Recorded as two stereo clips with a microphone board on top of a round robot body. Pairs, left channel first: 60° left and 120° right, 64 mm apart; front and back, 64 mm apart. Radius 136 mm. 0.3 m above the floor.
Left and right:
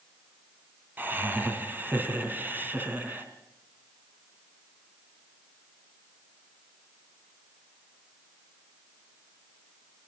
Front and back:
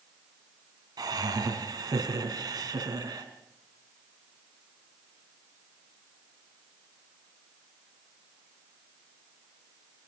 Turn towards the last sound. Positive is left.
turn(degrees=180)